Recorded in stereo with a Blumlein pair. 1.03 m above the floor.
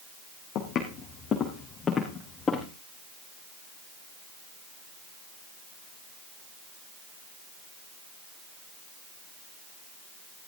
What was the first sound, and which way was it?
Footsteps, 30° left.